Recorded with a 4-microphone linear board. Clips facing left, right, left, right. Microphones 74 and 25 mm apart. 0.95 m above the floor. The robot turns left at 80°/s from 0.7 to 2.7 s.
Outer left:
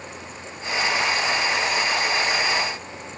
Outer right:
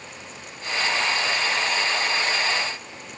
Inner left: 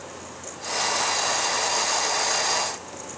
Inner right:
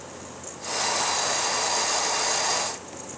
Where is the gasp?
No gasp in this recording.